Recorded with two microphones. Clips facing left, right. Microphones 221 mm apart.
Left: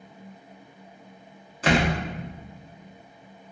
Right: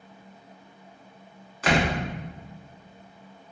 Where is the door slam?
30° left (ahead or behind), 1.0 m.